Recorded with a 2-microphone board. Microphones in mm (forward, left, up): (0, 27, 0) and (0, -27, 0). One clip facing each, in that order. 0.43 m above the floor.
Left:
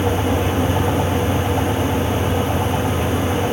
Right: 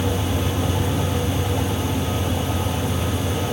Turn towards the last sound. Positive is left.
No sound to turn to.